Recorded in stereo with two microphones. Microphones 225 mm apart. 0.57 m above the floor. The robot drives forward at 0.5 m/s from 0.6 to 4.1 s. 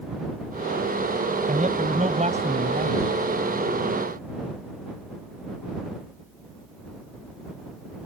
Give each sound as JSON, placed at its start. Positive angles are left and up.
{"t": 1.5, "sound": "a man speaking", "side_deg": -35}